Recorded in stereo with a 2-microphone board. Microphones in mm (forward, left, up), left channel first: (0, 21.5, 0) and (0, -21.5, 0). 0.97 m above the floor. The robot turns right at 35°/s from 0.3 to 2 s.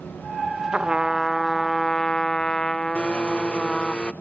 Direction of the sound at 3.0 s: 25° left (ahead or behind).